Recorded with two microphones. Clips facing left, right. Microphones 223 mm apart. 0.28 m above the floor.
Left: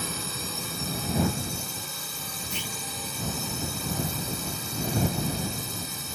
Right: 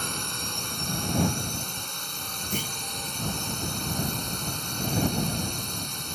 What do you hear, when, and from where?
0.0 s a drone: 5° left (ahead or behind)
2.5 s a clunk: 55° right (ahead or behind)